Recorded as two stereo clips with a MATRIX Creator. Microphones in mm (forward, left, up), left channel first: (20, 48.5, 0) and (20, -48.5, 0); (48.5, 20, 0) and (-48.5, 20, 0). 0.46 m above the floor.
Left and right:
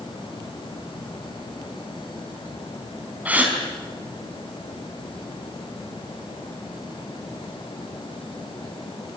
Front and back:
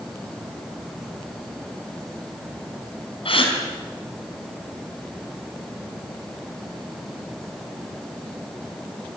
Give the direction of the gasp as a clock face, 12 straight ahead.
1 o'clock.